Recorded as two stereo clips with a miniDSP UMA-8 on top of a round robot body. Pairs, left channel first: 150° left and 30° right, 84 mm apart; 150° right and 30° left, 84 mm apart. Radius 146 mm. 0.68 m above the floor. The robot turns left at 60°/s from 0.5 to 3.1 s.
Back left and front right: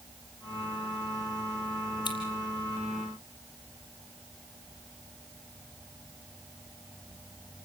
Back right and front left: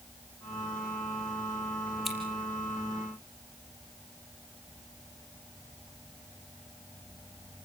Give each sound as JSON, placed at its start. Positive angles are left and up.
{"t": 2.0, "sound": "scissors", "azimuth_deg": 120, "distance_m": 5.0}